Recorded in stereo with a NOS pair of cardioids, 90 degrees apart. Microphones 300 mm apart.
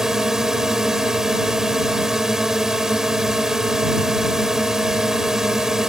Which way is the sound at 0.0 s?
Straight ahead.